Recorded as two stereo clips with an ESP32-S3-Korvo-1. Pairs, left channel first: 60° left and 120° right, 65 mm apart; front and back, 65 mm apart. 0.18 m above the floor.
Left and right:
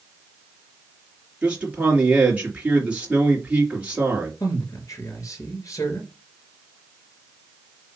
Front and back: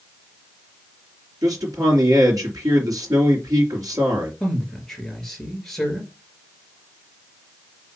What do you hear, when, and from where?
1.4 s a man speaking: 170° left, 3.5 m
4.4 s a man speaking: 80° left, 3 m